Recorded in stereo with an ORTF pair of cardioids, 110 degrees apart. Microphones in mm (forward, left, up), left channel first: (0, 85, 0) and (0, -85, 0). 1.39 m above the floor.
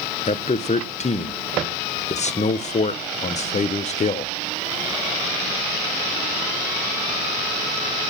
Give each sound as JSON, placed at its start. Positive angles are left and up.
{"t": 0.3, "sound": "a man speaking", "azimuth_deg": 40, "distance_m": 0.7}